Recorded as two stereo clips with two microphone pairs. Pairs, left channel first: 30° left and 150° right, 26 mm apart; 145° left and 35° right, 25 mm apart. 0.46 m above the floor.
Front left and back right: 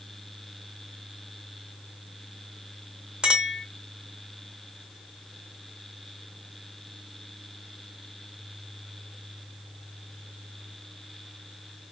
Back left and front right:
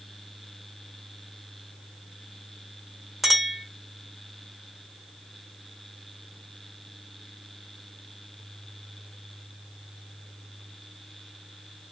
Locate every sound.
3.2 s a clink: 115° right, 0.9 m